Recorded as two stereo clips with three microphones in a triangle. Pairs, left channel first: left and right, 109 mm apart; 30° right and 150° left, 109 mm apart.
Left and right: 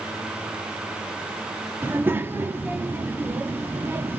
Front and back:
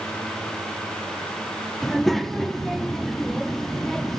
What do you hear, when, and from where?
1.8 s a child speaking: 115° right, 0.7 m